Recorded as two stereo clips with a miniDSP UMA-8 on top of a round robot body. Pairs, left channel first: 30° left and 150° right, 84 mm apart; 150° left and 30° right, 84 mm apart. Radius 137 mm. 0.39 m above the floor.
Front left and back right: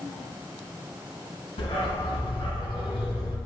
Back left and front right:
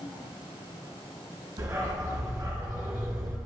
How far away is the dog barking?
About 2.5 m.